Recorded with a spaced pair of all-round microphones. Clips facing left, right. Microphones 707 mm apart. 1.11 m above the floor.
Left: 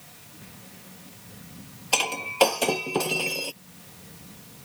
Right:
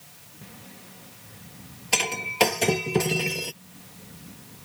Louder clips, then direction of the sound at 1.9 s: Right 1 dB; 50° right (ahead or behind).